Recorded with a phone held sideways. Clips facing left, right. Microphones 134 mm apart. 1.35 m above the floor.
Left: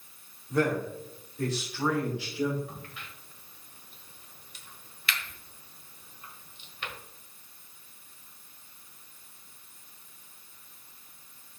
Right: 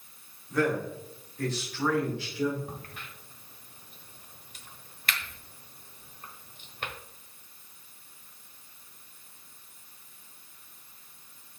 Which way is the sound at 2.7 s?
45° right (ahead or behind).